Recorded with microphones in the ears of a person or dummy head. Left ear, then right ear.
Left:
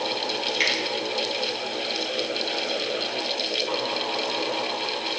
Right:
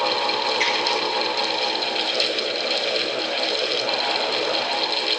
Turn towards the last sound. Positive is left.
turn(degrees=15)  # may be behind; listen again after turning